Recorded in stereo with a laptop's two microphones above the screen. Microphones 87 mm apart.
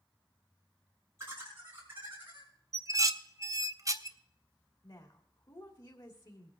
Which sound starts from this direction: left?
A woman speaking, at 4.8 s.